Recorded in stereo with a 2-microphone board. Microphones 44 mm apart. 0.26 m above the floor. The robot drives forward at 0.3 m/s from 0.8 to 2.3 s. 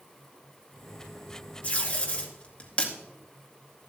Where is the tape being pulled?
30° left (ahead or behind), 1.9 m; by 2.9 s 25° left (ahead or behind), 2 m.